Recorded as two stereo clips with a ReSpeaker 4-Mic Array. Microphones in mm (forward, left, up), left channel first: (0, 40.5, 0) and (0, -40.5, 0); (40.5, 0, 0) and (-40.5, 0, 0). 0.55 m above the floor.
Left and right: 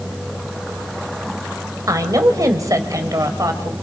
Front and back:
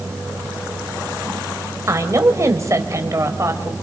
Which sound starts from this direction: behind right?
A woman speaking, at 1.9 s.